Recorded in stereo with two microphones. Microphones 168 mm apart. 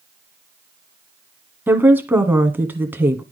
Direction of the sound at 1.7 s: 10° right (ahead or behind).